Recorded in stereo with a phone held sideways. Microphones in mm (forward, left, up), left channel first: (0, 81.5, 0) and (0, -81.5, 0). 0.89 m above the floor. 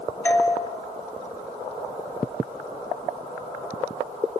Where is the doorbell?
15° left (ahead or behind), 2.5 m.